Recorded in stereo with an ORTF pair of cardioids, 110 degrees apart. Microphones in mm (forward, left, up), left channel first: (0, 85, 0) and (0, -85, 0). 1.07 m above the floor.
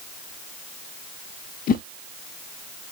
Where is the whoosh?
55° left, 0.6 m.